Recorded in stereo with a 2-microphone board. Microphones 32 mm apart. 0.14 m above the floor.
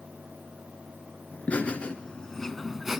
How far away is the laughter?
About 1.6 m.